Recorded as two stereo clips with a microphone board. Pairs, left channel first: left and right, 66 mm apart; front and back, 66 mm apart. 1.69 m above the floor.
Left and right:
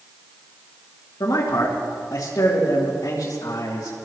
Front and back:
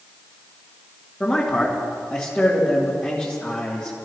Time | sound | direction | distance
1.2 | a man speaking | 65° left | 3 m